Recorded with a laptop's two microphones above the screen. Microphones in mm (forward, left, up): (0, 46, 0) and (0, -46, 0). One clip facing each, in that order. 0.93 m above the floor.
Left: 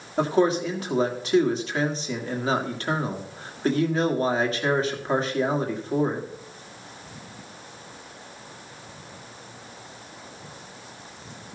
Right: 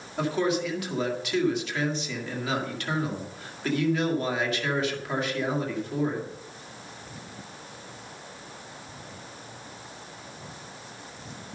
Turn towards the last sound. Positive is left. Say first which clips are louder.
# left 5 dB
turn(degrees=35)  # may be behind; listen again after turning